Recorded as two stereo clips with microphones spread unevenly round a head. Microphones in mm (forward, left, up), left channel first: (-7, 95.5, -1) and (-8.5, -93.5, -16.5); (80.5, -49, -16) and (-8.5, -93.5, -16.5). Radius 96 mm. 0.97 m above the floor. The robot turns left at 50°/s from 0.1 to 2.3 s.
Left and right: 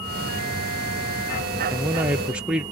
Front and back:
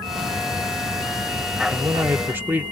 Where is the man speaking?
120° right, 0.6 m; by 2.6 s 150° right, 0.6 m.